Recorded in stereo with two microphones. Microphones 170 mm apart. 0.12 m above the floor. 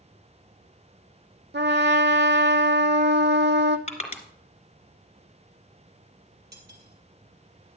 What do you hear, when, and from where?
1.5 s a trumpet: 85° right, 0.8 m
3.9 s crushing: 40° left (ahead or behind), 1.8 m
6.5 s cutlery clinking: 65° right (ahead or behind), 2 m